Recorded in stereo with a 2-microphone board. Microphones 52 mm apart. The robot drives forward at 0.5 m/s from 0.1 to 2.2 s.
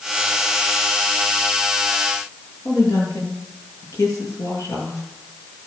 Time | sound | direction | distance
2.6 | a woman speaking | 75° left (ahead or behind) | 7 m